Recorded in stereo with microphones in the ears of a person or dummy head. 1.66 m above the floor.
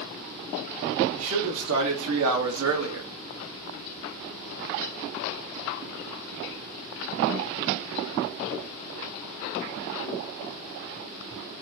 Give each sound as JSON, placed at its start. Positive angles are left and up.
{"t": 1.1, "sound": "a man speaking", "side_deg": -80, "distance_m": 1.7}